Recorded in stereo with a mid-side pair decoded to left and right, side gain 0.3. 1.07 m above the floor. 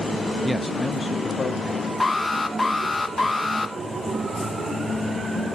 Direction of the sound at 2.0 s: 30° left.